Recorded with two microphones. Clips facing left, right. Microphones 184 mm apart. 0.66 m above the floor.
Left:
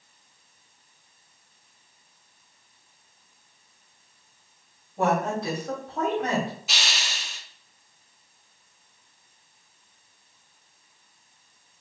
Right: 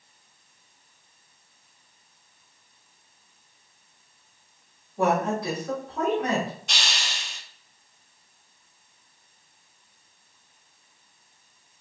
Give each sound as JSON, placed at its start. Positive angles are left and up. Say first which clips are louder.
{"t": 5.0, "sound": "a woman speaking", "louder": "right 1 dB", "side_deg": 25, "distance_m": 2.0}
{"t": 6.7, "sound": "a hiss", "louder": "even", "side_deg": 5, "distance_m": 0.7}